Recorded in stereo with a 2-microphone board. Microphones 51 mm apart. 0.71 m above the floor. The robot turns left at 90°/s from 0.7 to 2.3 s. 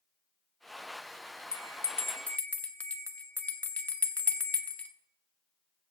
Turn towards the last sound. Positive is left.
turn(degrees=30)  # may be behind; listen again after turning